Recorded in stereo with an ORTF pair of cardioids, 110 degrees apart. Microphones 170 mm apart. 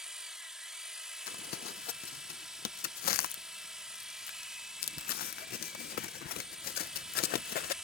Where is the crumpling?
60° left.